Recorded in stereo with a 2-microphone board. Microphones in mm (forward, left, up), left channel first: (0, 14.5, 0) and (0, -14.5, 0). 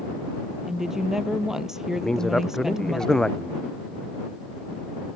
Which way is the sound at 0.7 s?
15° right (ahead or behind).